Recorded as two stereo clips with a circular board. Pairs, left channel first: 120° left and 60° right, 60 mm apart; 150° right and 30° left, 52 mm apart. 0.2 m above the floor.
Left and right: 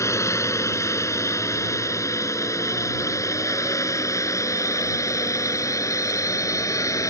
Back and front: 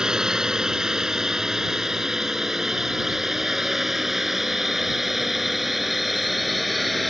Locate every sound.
0.0 s a drone: 105° left; by 7.1 s 120° left